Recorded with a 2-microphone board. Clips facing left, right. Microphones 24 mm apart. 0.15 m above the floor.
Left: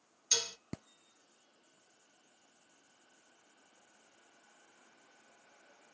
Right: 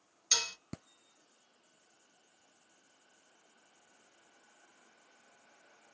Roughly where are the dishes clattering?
Right.